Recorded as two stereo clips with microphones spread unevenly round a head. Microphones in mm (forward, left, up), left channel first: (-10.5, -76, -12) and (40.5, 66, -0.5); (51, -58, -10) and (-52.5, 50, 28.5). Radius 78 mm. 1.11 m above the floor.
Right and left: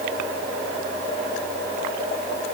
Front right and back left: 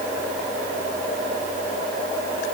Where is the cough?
I don't hear a cough.